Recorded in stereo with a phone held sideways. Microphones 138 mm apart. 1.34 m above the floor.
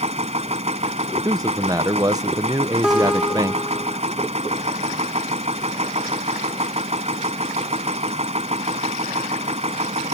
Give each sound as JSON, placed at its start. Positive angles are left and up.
{"t": 0.0, "sound": "a machine running", "side_deg": -50}
{"t": 1.2, "sound": "a man speaking", "side_deg": -25}
{"t": 2.8, "sound": "a guitar", "side_deg": -5}